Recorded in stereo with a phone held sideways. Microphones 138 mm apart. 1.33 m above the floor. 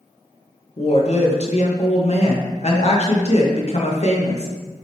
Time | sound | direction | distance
0.8 | a woman speaking | 50° left (ahead or behind) | 0.9 m